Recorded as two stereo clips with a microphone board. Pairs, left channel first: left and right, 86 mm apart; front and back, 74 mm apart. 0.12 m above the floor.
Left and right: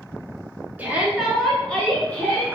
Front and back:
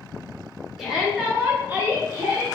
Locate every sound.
0.8 s a shout: 105° right, 1.2 m; by 2.5 s 140° left, 1.5 m